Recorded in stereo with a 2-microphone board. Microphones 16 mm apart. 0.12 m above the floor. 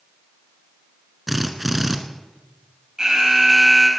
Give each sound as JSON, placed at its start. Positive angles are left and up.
{"t": 1.3, "sound": "a drill", "side_deg": -10, "distance_m": 1.3}
{"t": 3.0, "sound": "an alarm", "side_deg": -40, "distance_m": 4.0}